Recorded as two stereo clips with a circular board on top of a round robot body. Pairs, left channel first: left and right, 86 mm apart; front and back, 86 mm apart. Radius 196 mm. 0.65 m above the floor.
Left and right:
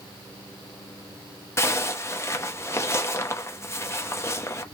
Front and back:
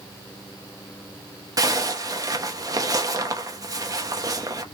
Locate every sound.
1.6 s a zipper: 140° left, 1.0 m